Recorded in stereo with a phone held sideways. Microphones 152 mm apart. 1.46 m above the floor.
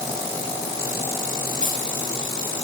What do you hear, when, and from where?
1.6 s keys jangling: 65° right (ahead or behind), 7 m